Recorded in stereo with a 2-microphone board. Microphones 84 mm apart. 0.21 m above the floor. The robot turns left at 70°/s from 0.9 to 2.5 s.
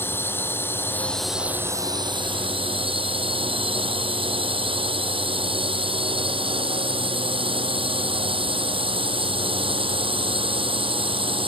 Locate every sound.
0.0 s a drone: 25° left; by 11.5 s 85° right